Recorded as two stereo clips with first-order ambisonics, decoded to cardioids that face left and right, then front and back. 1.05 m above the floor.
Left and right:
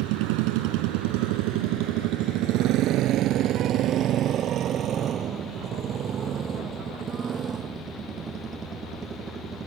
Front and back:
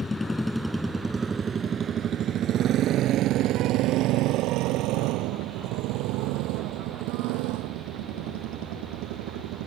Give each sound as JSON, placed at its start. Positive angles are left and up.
{"t": 0.0, "sound": "a motorcycle", "azimuth_deg": -75}